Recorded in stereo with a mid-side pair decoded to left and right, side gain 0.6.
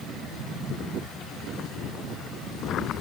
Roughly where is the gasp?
I don't hear a gasp.